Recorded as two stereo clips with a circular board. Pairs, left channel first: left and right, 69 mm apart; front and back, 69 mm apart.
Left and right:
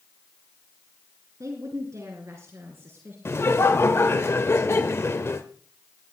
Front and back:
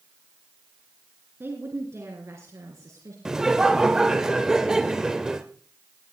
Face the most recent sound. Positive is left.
turn(degrees=100)